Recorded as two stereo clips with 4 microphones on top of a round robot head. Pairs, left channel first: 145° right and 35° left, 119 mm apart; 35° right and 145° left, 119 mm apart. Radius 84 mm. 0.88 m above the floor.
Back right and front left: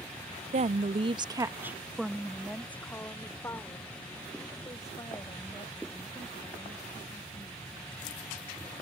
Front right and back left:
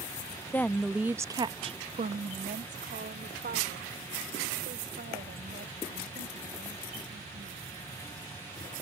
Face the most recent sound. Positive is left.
turn(degrees=160)